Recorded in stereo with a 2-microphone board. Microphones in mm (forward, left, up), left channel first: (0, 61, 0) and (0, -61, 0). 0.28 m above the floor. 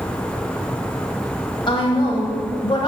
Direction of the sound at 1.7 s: 40° left (ahead or behind).